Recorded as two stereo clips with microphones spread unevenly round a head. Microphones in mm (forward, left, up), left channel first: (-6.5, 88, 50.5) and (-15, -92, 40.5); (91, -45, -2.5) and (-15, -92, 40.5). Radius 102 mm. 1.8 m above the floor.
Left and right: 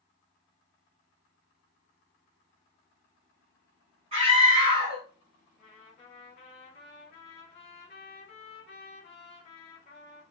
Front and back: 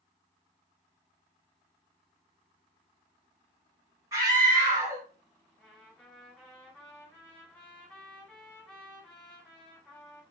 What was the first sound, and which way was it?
A scream, 145° right.